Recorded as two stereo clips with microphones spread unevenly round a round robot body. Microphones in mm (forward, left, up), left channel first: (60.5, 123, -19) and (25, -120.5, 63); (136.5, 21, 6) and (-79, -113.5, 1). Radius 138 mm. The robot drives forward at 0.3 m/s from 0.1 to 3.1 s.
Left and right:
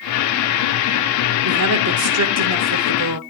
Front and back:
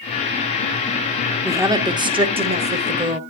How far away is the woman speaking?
About 1.5 m.